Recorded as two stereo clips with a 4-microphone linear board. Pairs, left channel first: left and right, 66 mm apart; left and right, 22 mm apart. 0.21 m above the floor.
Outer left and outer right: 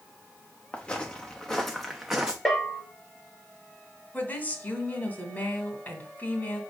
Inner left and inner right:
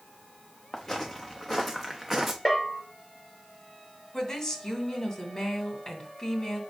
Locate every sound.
0.7 s footsteps: 20° left (ahead or behind), 1.7 m; by 2.4 s 15° right (ahead or behind), 1.3 m
2.5 s a bell: 5° left (ahead or behind), 2 m
4.1 s a woman speaking: 30° left (ahead or behind), 1.5 m